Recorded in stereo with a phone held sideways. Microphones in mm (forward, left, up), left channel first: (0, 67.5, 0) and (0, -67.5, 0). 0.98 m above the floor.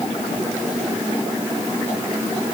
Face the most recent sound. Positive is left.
No sound to turn to.